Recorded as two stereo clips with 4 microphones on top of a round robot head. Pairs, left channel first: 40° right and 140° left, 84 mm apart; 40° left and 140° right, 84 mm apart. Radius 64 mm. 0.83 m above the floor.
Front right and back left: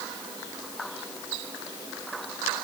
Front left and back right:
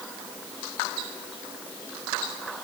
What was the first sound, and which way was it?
Only background noise.